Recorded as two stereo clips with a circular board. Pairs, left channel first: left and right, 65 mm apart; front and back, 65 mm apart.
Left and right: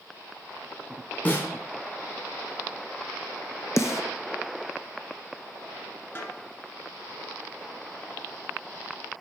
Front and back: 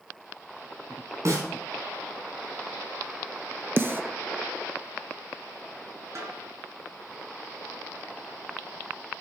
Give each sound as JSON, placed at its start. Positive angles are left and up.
{"t": 1.2, "sound": "a snare drum", "azimuth_deg": 150, "distance_m": 2.5}
{"t": 3.8, "sound": "a snare drum", "azimuth_deg": 125, "distance_m": 0.7}
{"t": 6.2, "sound": "a snare drum", "azimuth_deg": 145, "distance_m": 2.0}